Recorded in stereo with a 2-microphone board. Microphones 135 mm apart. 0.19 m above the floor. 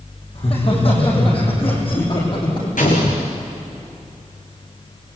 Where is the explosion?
85° left, 4 m.